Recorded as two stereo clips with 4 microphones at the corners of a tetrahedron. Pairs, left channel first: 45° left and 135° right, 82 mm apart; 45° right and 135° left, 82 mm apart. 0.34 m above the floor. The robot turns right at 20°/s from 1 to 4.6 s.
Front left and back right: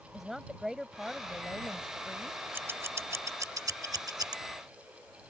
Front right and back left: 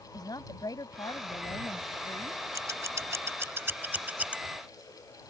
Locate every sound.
0.1 s a woman speaking: 50° right; by 2.4 s 20° right
2.5 s scissors: 170° left; by 4.4 s 155° right